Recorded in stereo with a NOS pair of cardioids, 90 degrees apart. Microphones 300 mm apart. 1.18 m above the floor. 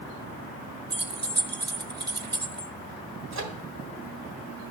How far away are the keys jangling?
About 0.9 m.